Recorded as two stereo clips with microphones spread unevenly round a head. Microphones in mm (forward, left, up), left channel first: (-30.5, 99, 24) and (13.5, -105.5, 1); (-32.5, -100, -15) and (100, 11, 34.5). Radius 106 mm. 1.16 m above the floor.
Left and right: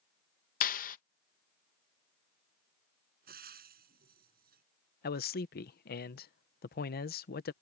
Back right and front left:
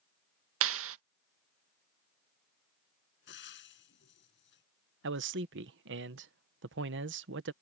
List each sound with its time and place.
0.6 s a clap: 50° left
3.3 s frying: 125° right
5.0 s a man speaking: 60° left